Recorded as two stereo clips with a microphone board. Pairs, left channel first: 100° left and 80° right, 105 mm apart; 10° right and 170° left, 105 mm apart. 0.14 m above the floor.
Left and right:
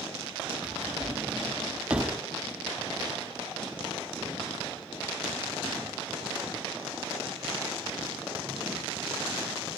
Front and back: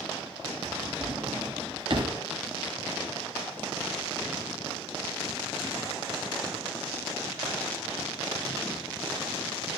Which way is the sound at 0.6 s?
155° right.